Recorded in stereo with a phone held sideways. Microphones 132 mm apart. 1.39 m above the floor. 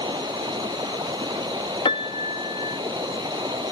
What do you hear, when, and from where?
0.0 s running water: 35° right (ahead or behind)
1.9 s a piano: 40° left (ahead or behind)